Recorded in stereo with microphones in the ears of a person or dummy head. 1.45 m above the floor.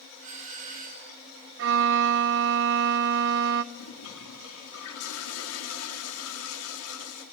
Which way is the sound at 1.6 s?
60° right (ahead or behind).